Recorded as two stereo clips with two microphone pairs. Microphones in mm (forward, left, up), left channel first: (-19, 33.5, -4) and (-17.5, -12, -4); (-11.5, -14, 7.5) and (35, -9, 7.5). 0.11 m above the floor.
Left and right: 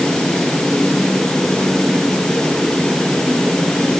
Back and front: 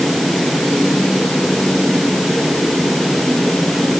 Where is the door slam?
I don't hear a door slam.